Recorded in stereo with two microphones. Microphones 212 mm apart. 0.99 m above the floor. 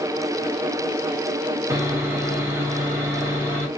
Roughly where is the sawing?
Centre.